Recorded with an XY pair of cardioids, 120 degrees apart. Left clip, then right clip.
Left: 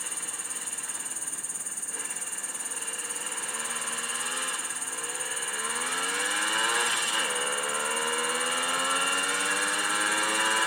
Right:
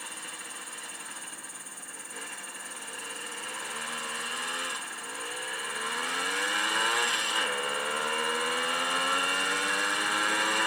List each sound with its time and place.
0.0 s an insect: 50° left